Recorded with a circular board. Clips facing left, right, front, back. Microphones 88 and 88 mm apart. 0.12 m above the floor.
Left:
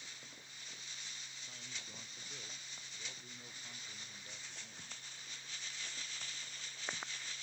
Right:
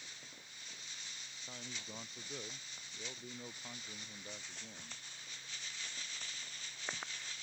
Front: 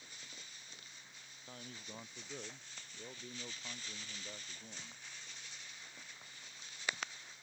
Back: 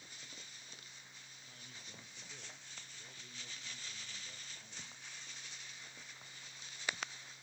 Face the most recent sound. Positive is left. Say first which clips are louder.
# right 6 dB, front 8 dB
turn(degrees=-40)